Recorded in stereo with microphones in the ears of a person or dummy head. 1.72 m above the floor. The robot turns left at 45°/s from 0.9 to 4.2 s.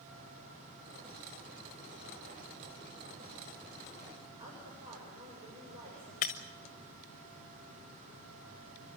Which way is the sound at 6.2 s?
25° left (ahead or behind).